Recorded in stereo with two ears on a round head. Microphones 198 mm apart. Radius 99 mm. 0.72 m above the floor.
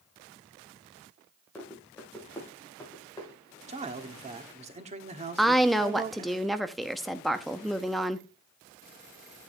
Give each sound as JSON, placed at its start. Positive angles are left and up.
{"t": 1.6, "sound": "running footsteps", "side_deg": 5, "distance_m": 5.0}
{"t": 3.7, "sound": "a man speaking", "side_deg": -30, "distance_m": 1.4}
{"t": 5.4, "sound": "a woman speaking", "side_deg": 0, "distance_m": 0.8}